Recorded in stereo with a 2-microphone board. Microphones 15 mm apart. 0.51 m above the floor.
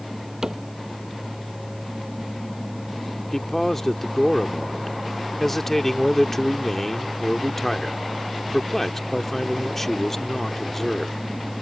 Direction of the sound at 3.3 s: 15° left (ahead or behind).